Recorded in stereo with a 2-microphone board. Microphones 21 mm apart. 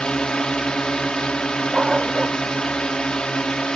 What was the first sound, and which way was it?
A drone, 45° left (ahead or behind).